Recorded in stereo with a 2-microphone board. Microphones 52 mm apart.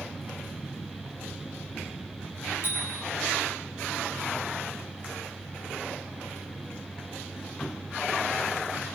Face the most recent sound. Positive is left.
turn(degrees=55)  # may be behind; listen again after turning